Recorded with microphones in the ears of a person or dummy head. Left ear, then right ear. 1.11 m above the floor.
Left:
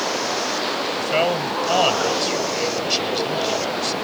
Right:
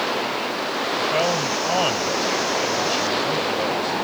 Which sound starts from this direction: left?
A man speaking, at 1.0 s.